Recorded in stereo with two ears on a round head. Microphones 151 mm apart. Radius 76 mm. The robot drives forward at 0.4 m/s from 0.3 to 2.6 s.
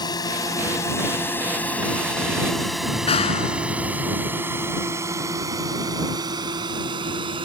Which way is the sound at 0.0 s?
25° left (ahead or behind).